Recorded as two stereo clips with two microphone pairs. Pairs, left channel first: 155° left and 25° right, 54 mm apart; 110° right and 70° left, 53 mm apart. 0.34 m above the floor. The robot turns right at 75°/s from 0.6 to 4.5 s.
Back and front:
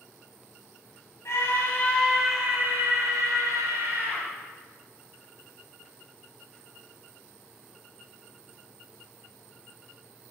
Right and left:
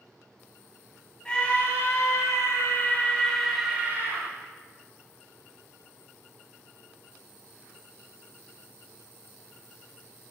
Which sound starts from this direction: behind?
A scream, at 1.2 s.